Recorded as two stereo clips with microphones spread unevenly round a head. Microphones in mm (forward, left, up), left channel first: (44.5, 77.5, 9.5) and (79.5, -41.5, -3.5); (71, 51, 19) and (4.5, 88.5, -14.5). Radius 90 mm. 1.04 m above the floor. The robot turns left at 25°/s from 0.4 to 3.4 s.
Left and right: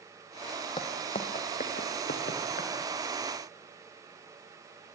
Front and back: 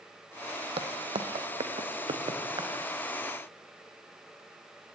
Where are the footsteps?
160° left, 2 m; by 2.7 s 125° left, 4 m.